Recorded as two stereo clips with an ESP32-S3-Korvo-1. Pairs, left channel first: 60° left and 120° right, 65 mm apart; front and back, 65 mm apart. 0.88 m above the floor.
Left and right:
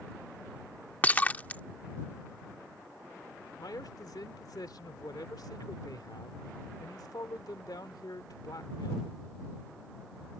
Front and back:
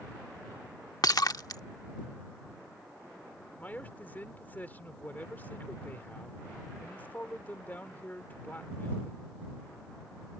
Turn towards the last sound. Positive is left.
turn(degrees=65)